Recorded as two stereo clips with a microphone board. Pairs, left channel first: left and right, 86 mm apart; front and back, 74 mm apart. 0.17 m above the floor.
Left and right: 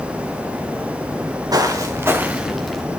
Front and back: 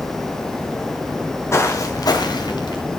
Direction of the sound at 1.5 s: 50° right.